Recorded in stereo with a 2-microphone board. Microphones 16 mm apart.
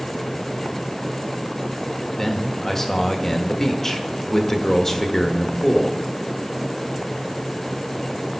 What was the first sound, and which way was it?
A man speaking, 25° left (ahead or behind).